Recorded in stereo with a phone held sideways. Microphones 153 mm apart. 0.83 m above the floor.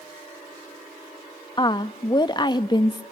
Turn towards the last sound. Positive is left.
turn(degrees=30)  # may be behind; listen again after turning